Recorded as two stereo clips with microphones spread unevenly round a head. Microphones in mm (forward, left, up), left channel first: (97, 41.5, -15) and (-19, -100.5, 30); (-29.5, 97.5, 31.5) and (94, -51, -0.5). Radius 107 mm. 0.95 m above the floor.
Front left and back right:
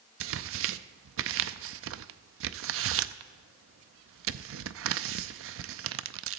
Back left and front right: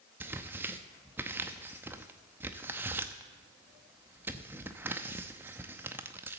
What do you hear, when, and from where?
0.2 s tearing paper: 135° right, 0.6 m